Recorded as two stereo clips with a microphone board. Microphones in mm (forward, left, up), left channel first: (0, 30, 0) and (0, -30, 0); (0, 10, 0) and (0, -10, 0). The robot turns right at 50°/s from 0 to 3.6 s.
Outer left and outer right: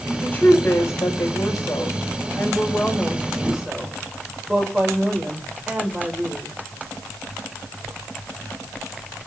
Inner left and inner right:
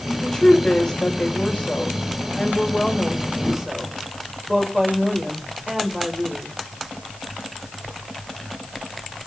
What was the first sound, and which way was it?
A woman speaking, 20° left.